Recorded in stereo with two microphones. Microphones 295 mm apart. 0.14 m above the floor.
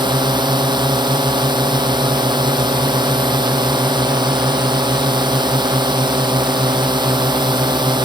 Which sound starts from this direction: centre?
A drone, at 0.0 s.